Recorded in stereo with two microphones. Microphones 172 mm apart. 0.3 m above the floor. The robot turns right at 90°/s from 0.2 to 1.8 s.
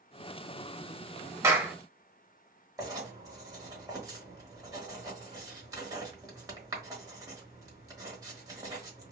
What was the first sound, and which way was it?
A clap, 15° right (ahead or behind).